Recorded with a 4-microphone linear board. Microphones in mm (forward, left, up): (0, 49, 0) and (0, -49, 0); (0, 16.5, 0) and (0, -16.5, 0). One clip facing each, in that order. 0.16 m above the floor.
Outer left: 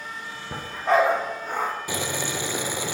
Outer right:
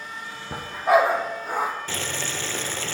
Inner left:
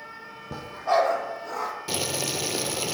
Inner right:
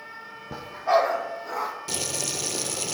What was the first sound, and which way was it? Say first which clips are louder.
A dog barking: outer right 2 dB, inner right 1 dB; 10° right (ahead or behind).